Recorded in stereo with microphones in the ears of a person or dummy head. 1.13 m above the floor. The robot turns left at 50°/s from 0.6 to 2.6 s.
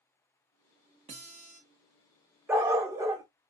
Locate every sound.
1.1 s a guitar: 30° right (ahead or behind), 0.9 m; by 1.6 s 40° right (ahead or behind), 0.9 m
2.5 s a dog barking: 10° right (ahead or behind), 0.6 m